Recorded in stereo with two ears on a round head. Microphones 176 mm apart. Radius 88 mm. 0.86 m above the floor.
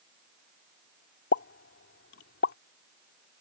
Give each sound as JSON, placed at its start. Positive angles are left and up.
{"t": 1.3, "sound": "a pop", "side_deg": 60}